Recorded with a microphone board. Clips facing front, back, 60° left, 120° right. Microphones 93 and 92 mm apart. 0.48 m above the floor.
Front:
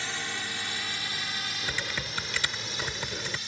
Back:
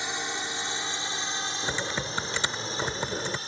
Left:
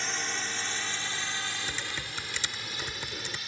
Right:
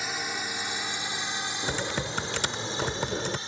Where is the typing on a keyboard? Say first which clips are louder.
Back 4 dB, right 7 dB; 125° right.